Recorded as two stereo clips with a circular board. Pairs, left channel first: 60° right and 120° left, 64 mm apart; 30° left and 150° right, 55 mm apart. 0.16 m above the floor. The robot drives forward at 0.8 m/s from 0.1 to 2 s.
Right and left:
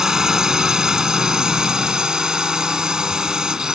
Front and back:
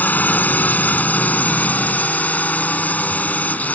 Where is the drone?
45° left; by 3.8 s 50° left.